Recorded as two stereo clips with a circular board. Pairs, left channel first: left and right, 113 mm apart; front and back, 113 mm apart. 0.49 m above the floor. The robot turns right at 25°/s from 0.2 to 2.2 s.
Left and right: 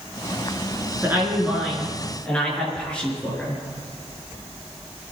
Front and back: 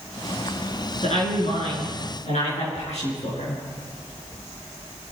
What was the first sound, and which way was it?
A woman speaking, 20° right.